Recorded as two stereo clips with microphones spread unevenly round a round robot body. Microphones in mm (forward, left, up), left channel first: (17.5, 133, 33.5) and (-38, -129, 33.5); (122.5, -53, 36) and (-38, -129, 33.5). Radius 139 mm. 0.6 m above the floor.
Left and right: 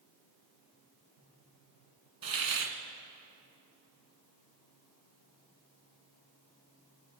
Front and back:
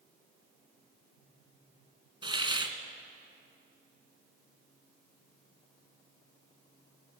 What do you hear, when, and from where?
2.2 s a hiss: 90° right, 2.5 m